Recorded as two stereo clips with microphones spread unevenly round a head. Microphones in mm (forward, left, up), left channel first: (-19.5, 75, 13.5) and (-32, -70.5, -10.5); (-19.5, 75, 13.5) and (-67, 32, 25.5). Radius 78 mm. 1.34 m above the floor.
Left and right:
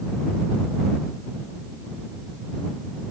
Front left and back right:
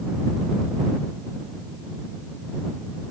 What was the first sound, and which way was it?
Only background noise.